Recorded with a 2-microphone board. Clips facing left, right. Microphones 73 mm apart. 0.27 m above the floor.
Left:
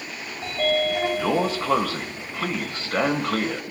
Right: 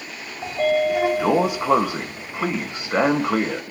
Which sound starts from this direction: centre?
A sliding door, at 0.4 s.